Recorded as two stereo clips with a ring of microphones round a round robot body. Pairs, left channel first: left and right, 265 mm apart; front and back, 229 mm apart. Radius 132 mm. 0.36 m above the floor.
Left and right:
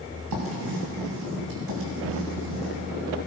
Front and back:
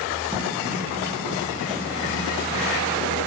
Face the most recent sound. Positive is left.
turn(degrees=-100)